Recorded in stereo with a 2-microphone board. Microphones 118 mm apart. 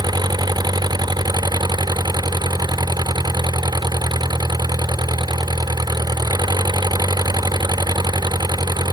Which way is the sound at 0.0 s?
35° right (ahead or behind).